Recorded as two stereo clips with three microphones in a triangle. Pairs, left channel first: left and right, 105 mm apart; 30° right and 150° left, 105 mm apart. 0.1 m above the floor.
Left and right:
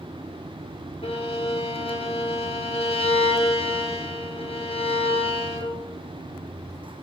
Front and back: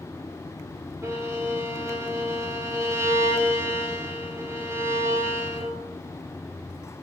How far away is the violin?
About 5 m.